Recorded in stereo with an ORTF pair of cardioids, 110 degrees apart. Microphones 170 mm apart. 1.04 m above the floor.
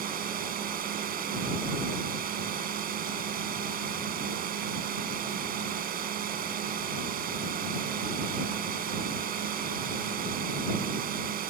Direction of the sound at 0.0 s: 60° right.